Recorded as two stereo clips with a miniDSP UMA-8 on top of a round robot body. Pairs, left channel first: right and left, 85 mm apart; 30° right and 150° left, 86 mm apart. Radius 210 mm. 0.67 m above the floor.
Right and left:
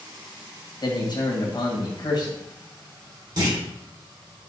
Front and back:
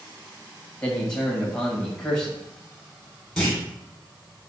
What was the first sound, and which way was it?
A man speaking, 110° right.